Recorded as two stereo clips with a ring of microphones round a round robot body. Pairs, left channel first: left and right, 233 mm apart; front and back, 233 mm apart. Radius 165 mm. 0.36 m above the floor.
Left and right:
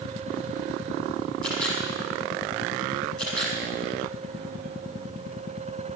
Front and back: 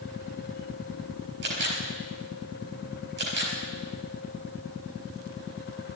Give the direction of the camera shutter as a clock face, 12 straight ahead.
6 o'clock.